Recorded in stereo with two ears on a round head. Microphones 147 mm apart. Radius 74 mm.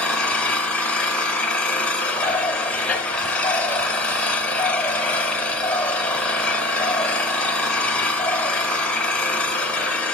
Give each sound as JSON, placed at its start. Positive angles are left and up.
{"t": 0.0, "sound": "an engine running", "side_deg": 5, "distance_m": 1.7}
{"t": 2.1, "sound": "a bird", "side_deg": 10, "distance_m": 0.8}